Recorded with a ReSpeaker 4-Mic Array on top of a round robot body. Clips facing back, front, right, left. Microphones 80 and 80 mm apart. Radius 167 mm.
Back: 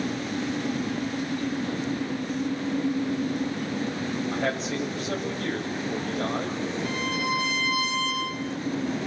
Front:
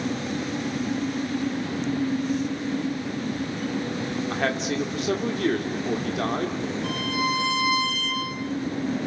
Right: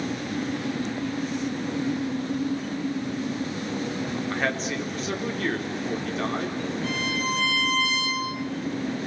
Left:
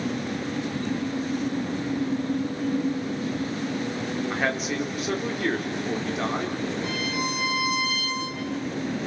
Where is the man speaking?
10° left, 4 m.